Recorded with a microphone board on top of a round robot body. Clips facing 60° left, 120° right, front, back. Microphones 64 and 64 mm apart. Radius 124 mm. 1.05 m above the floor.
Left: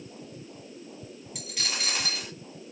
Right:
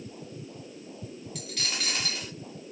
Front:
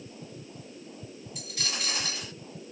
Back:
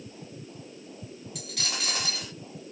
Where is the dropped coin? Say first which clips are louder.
Left 1 dB, back 1 dB; 145° left, 0.9 m.